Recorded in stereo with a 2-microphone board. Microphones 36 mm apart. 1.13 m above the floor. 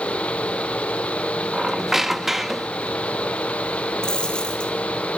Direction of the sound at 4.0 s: 20° left (ahead or behind).